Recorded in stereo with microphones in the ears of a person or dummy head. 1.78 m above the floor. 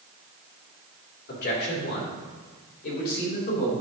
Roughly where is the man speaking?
Left.